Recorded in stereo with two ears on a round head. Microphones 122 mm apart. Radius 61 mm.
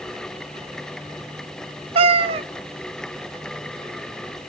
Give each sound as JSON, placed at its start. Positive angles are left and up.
{"t": 1.9, "sound": "a cat meowing", "side_deg": -40, "distance_m": 0.5}